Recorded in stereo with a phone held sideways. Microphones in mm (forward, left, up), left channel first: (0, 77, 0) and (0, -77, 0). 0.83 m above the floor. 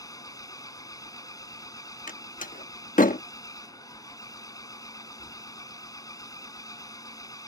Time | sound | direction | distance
0.0 | an engine running | 25° left (ahead or behind) | ?
2.1 | a door slam | 60° left (ahead or behind) | ?